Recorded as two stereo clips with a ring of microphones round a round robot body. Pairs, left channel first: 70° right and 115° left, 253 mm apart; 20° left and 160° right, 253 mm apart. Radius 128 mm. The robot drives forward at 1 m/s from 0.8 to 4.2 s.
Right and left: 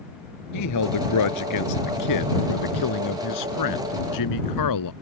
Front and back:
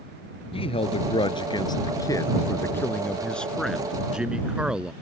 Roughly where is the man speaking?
Ahead right.